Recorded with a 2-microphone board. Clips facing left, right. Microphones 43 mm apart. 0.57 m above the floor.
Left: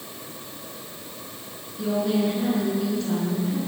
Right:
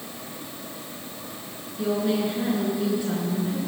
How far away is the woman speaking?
About 6.5 m.